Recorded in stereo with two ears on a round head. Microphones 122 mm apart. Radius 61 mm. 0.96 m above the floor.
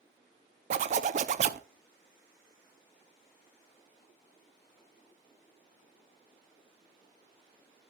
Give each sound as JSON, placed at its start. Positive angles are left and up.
{"t": 0.7, "sound": "a zipper", "side_deg": -55, "distance_m": 0.5}